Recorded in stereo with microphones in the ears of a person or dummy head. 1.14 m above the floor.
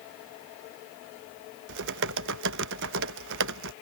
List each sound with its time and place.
1.7 s typing on a keyboard: 65° right (ahead or behind)